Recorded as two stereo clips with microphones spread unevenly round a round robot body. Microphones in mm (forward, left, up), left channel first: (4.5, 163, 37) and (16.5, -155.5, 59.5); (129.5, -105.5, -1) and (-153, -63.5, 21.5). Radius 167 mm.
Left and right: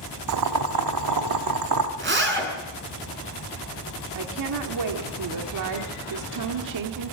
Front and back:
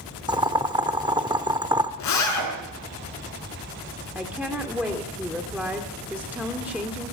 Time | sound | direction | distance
0.3 | boiling | 110° right | 1.2 m
2.0 | a zipper | 30° right | 5.5 m
4.2 | a woman speaking | 100° right | 1.9 m